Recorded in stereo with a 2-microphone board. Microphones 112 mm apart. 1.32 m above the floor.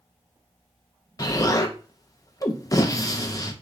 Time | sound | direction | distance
1.2 | an explosion | 30° left (ahead or behind) | 0.7 m